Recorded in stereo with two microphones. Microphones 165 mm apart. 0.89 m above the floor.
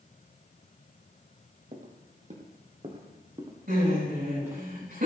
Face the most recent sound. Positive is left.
turn(degrees=-75)  # may be behind; listen again after turning